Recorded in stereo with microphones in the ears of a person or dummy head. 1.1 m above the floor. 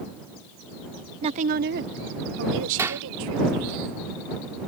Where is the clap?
15° right (ahead or behind).